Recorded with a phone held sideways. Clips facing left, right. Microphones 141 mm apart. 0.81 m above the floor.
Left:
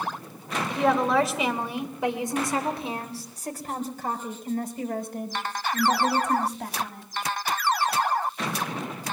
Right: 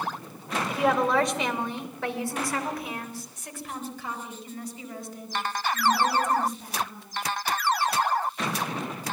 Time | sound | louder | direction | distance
0.7 | a woman speaking | left 1 dB | 5° right (ahead or behind) | 3 m